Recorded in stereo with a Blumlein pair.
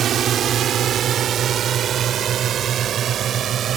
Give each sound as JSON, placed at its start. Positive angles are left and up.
{"t": 0.0, "sound": "a drone", "azimuth_deg": -25}